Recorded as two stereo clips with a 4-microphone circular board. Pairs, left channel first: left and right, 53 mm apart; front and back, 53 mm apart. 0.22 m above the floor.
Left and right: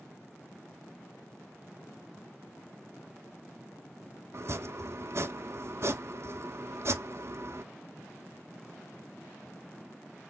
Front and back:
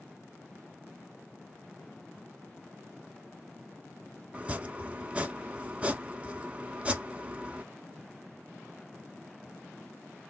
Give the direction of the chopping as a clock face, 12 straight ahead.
4 o'clock.